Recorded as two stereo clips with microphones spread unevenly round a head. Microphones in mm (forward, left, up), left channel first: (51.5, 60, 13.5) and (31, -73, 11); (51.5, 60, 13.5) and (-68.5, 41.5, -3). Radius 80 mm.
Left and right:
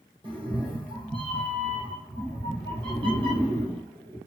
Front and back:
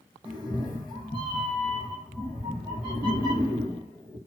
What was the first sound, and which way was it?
A cat meowing, 45° right.